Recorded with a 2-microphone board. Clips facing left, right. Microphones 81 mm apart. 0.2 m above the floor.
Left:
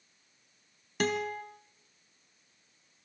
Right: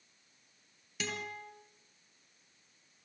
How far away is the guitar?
About 2.5 m.